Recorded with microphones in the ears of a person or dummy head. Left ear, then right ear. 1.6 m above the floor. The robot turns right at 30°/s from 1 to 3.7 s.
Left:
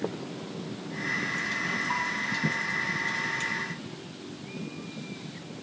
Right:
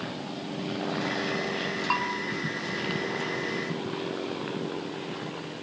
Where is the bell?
50° right (ahead or behind), 1.7 m; by 2.2 s 45° right (ahead or behind), 1.7 m.